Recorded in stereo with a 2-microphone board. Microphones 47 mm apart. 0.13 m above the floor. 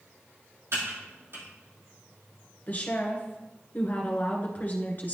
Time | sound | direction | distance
0.7 | typing on a keyboard | 65° right (ahead or behind) | 2.5 m
2.7 | a woman speaking | 40° left (ahead or behind) | 1.5 m